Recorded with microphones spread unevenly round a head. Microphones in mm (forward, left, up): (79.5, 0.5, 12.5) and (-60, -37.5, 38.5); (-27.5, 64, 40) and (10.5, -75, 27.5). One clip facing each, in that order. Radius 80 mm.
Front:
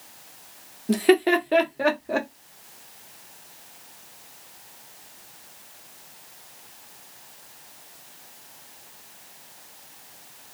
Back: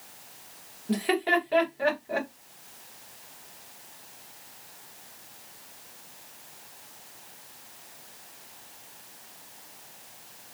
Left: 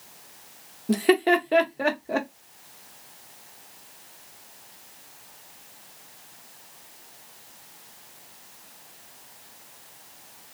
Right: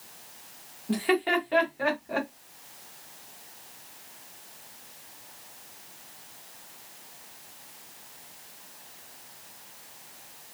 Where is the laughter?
55° left, 0.9 m.